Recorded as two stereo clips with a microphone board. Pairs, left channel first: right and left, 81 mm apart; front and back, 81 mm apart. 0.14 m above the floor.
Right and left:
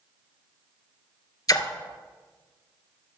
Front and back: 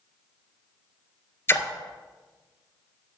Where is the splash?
55° right, 0.7 m.